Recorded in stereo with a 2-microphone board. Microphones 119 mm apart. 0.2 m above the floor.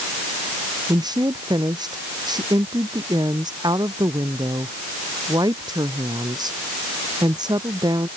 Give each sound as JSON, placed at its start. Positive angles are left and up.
{"t": 0.9, "sound": "a woman speaking", "side_deg": -35}